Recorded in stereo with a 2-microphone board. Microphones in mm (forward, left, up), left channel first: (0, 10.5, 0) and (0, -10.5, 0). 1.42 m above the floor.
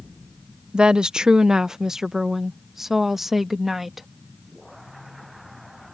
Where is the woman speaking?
55° right (ahead or behind); by 4.1 s 10° right (ahead or behind).